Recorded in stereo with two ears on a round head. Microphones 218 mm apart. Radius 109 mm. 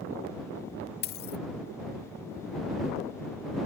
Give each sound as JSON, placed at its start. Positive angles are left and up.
{"t": 1.0, "sound": "a dropped coin", "side_deg": 45}